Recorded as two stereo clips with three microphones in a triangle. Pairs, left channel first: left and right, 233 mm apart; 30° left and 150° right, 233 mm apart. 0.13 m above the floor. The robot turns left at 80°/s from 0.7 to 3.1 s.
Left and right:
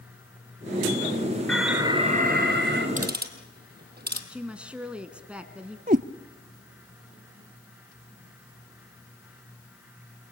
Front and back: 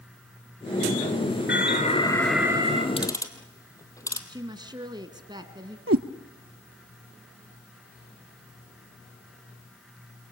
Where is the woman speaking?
165° right, 1.2 m.